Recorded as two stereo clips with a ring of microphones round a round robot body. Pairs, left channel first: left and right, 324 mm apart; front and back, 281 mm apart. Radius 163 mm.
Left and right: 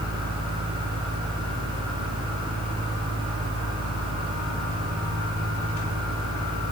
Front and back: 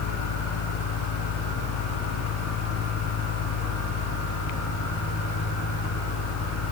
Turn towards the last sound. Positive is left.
No sound to turn to.